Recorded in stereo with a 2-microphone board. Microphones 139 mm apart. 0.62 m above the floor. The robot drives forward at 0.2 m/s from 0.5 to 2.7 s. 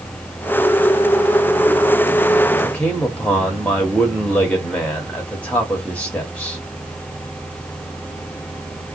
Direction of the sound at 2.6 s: 10° left (ahead or behind).